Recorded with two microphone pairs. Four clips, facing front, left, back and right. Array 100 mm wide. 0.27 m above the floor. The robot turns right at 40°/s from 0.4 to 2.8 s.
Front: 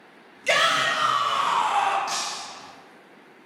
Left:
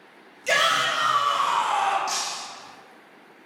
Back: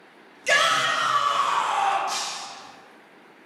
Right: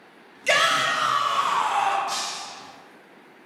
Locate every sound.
0.5 s a shout: 75° right, 1.0 m; by 2.0 s 15° right, 1.0 m
2.1 s breaking glass: 25° left, 1.4 m; by 2.4 s 40° left, 1.4 m